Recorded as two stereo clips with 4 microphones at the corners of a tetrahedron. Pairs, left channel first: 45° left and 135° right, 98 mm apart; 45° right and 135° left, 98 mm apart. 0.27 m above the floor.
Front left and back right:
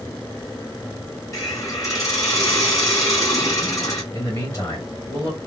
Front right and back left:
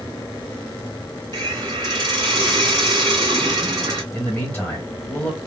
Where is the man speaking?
15° left, 1.7 m.